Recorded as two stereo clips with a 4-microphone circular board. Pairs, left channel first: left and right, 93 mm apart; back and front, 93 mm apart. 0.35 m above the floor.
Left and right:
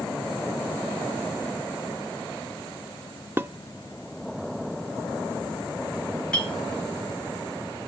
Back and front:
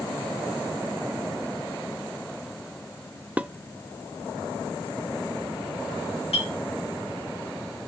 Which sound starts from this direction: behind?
A clink, at 6.3 s.